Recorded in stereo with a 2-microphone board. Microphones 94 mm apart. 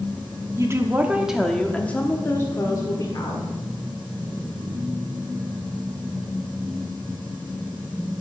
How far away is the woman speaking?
About 0.9 m.